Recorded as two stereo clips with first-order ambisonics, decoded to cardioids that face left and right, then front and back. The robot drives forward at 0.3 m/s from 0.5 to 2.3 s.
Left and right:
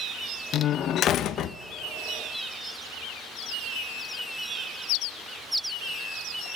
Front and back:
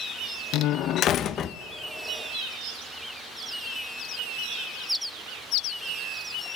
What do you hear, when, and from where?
0.5 s a door slam: 35° left, 0.9 m; by 1.6 s 55° left, 0.7 m